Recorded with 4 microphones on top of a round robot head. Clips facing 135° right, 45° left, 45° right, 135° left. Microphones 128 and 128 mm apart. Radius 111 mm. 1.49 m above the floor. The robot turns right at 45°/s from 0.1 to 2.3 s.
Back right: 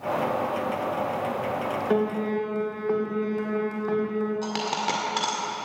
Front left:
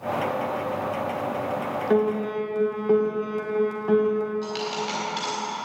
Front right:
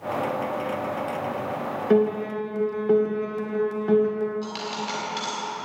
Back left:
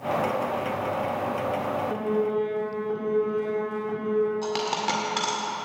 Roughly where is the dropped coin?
Behind.